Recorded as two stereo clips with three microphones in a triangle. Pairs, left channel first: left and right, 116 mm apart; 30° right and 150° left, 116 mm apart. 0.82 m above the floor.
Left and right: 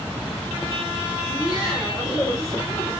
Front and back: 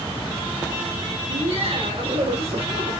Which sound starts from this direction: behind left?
Laughter, at 1.2 s.